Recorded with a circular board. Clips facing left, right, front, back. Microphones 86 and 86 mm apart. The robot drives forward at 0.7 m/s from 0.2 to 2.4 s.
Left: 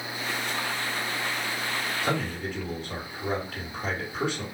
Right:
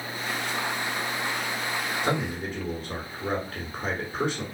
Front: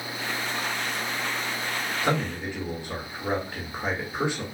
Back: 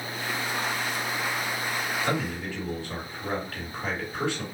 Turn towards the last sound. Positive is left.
turn(degrees=-65)